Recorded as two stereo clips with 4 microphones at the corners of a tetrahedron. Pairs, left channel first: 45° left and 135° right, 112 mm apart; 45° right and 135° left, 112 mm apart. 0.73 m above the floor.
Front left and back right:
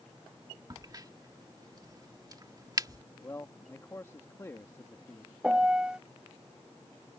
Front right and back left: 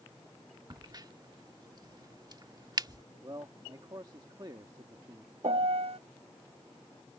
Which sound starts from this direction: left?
A man speaking, at 3.2 s.